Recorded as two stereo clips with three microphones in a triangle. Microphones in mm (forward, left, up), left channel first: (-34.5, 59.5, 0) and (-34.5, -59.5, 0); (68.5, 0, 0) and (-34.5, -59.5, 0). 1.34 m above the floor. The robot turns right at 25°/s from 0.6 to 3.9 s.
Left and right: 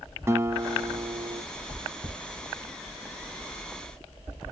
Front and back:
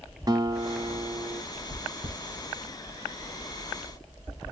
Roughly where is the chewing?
Behind.